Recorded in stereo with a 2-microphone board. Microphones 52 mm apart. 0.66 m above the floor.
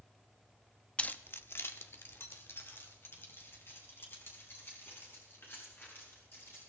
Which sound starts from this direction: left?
Keys jangling, at 1.0 s.